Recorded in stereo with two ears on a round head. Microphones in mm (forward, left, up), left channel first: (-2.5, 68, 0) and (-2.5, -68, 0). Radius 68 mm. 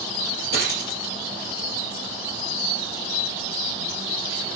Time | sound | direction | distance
0.5 | a dropped coin | 70° left (ahead or behind) | 5 m